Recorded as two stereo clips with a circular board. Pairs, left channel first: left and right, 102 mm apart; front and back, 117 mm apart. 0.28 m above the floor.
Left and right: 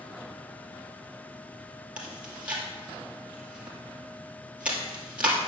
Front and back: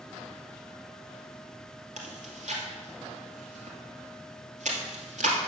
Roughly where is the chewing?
Behind.